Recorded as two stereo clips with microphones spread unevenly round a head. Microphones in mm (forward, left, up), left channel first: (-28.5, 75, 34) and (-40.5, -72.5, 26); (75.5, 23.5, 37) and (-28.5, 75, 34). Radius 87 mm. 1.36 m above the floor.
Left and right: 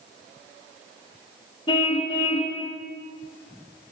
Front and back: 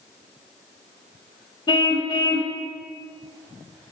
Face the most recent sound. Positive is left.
turn(degrees=20)